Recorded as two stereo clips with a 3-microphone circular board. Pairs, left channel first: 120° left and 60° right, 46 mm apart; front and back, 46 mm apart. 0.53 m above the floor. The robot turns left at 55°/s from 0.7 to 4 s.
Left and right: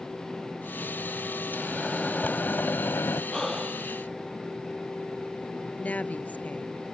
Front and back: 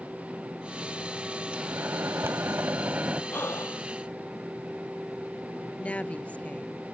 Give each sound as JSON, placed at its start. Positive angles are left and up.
{"t": 1.5, "sound": "a microwave", "azimuth_deg": -140}
{"t": 3.3, "sound": "breathing", "azimuth_deg": 40}
{"t": 5.8, "sound": "a woman speaking", "azimuth_deg": 65}